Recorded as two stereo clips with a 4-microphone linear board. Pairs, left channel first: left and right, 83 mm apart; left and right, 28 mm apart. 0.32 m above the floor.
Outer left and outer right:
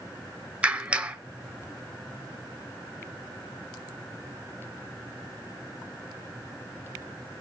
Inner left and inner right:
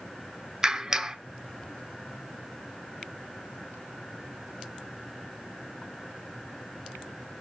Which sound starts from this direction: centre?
A clap, at 0.6 s.